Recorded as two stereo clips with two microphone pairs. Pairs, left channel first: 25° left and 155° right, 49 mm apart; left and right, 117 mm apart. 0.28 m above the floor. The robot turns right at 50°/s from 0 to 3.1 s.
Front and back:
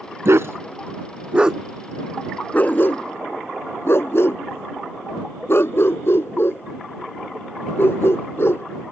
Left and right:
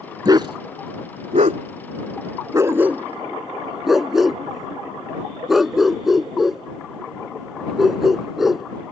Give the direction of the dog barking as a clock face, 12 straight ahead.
5 o'clock.